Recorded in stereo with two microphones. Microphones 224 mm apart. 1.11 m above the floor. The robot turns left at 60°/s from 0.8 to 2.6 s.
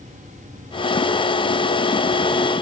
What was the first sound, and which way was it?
Only background noise.